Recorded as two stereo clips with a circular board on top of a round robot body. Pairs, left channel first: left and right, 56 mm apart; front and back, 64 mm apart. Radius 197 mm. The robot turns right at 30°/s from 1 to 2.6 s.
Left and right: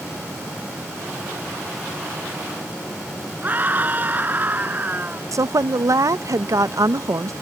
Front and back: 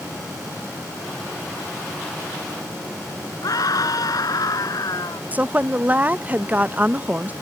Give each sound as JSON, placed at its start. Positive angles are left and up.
{"t": 3.4, "sound": "a scream", "azimuth_deg": -30}
{"t": 5.3, "sound": "a woman speaking", "azimuth_deg": -115}